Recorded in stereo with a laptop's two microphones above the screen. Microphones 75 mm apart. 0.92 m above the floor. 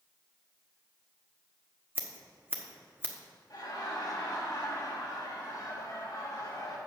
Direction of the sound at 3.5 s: 60° left (ahead or behind).